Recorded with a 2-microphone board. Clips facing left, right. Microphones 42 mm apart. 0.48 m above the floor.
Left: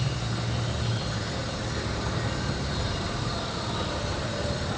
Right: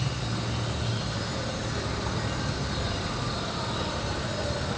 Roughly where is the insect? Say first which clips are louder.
Even; right.